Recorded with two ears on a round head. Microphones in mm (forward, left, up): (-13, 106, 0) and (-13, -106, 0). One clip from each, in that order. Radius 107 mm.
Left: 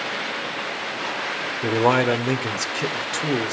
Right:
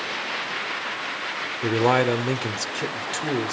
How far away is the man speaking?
About 1.8 m.